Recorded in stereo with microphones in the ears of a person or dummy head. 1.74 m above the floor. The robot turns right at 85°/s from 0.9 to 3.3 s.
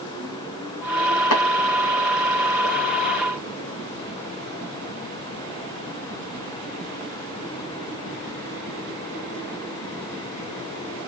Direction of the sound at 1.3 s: 80° left.